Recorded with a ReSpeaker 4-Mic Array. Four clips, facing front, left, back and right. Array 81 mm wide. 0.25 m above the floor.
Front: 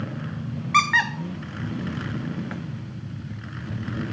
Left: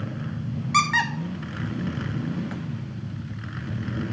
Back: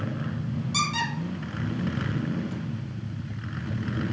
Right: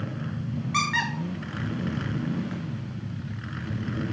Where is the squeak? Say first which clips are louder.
Left 5 dB, front 9 dB; 10° left, 0.7 m.